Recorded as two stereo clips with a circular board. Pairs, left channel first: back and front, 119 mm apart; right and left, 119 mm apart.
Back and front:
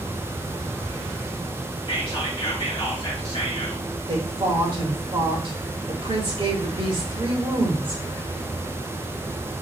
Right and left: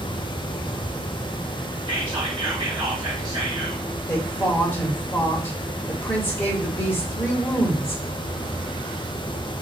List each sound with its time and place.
1.9 s whispering: 140° left, 2.5 m
4.1 s a woman speaking: 30° right, 1.3 m